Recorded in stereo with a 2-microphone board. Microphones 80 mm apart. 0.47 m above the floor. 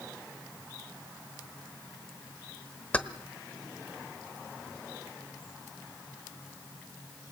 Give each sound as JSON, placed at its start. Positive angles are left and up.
{"t": 2.9, "sound": "keys jangling", "side_deg": 15, "distance_m": 1.0}